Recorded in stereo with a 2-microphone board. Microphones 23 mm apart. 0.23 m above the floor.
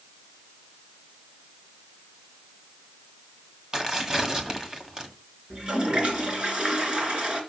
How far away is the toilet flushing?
About 3 m.